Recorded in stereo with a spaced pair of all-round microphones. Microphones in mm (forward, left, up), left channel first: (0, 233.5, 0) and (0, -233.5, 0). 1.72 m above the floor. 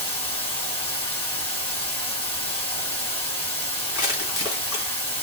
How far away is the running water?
About 2 m.